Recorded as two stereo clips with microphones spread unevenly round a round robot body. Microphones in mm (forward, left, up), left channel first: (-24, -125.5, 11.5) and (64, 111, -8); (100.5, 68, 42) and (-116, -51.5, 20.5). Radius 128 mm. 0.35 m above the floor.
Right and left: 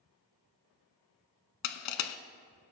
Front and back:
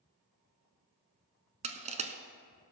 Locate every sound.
1.6 s crushing: 85° right, 0.8 m